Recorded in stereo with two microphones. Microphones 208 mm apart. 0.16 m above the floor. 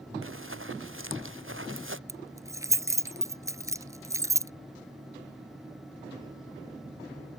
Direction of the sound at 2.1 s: 15° right (ahead or behind).